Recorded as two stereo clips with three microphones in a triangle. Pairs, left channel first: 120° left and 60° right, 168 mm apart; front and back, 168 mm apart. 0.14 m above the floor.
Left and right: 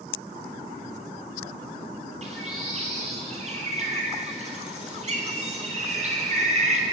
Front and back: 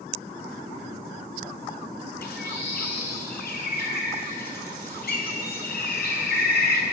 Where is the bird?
15° right, 0.7 m.